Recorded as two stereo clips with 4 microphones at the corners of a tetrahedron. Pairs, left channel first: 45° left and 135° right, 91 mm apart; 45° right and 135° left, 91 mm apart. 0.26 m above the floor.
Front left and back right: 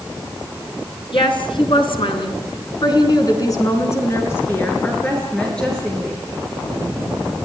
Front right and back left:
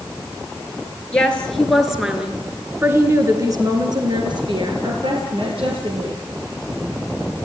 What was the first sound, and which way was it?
A woman speaking, 30° left.